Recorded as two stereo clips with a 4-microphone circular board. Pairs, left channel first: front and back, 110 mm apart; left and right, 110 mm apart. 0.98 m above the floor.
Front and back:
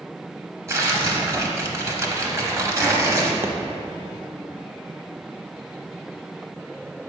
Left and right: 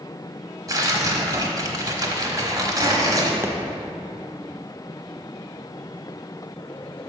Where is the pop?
135° right, 0.6 m.